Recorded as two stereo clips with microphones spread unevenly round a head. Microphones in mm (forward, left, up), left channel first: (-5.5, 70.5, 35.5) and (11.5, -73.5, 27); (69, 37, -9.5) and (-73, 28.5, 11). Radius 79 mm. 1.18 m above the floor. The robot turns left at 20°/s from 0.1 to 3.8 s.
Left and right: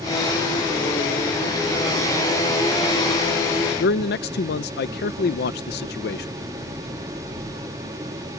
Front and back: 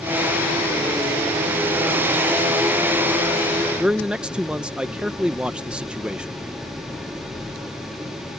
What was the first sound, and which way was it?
A man speaking, 100° left.